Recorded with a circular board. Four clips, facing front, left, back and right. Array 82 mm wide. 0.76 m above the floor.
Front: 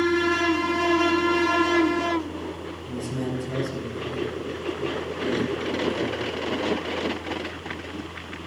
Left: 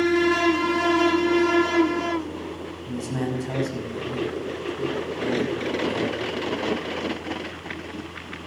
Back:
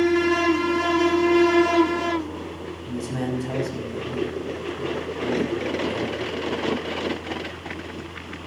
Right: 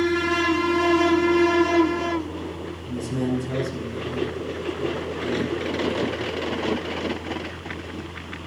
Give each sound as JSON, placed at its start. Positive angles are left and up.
{"t": 2.9, "sound": "a man speaking", "azimuth_deg": 135, "distance_m": 6.0}